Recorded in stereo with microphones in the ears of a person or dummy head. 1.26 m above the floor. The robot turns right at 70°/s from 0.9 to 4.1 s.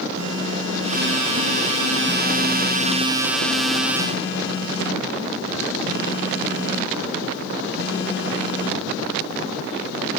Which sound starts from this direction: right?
A phone buzzing, at 0.1 s.